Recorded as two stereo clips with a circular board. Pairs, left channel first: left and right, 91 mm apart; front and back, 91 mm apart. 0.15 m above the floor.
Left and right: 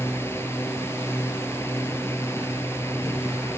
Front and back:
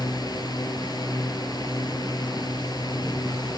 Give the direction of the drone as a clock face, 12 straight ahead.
11 o'clock.